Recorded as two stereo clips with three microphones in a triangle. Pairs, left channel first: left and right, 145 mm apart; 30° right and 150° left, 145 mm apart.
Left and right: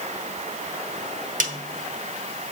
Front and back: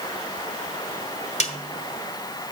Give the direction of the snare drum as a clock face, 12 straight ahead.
2 o'clock.